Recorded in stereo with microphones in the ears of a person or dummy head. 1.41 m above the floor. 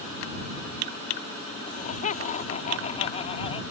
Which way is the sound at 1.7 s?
40° left (ahead or behind).